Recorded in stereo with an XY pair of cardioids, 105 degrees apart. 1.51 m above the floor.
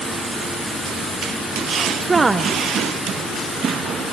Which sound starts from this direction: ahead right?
A woman speaking, at 2.0 s.